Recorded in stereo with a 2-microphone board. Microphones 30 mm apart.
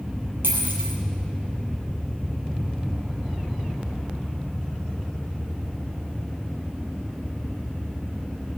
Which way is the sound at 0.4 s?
85° right.